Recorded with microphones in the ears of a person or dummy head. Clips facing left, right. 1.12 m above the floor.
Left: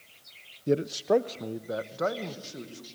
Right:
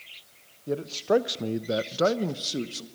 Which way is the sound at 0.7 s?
30° left (ahead or behind).